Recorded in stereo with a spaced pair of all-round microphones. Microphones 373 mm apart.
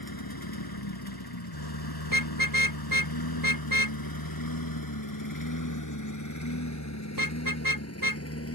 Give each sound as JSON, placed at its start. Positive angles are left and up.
{"t": 0.0, "sound": "a lawn mower", "side_deg": 70}
{"t": 2.0, "sound": "a car horn", "side_deg": -60}